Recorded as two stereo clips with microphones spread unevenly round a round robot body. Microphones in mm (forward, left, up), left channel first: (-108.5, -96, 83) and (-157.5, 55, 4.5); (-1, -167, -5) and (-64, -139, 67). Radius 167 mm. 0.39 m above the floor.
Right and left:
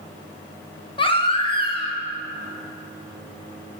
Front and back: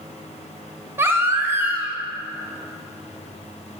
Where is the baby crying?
10° left, 0.7 m.